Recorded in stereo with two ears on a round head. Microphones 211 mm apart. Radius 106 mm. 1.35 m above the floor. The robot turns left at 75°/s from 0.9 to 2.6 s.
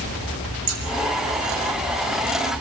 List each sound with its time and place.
0.7 s scissors: 65° right (ahead or behind), 6 m